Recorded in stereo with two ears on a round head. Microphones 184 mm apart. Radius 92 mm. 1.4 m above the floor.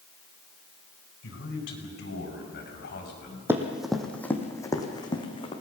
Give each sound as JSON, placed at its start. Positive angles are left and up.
{"t": 1.2, "sound": "a man speaking", "side_deg": 65, "distance_m": 5.0}
{"t": 3.5, "sound": "running footsteps", "side_deg": -15, "distance_m": 2.5}